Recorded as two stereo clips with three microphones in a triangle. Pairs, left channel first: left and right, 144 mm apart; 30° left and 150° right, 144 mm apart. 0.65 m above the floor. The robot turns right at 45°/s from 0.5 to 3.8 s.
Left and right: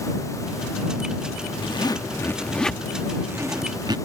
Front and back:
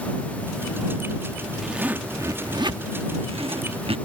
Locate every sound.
1.6 s a zipper: 125° left; by 4.0 s 135° right